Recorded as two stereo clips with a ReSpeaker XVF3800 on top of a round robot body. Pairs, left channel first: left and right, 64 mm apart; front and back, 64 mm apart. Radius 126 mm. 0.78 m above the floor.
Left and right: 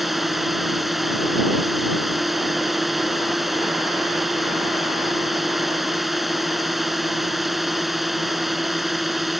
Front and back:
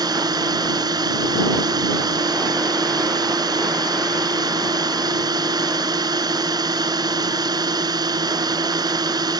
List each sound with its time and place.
0.0 s a drone: straight behind